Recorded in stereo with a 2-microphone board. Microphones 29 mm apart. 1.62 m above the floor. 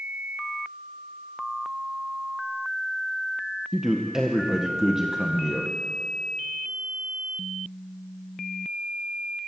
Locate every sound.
3.7 s a man speaking: 15° right (ahead or behind), 1.8 m